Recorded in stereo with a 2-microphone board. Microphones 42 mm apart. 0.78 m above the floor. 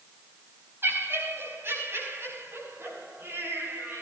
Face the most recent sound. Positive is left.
turn(degrees=-75)  # may be behind; listen again after turning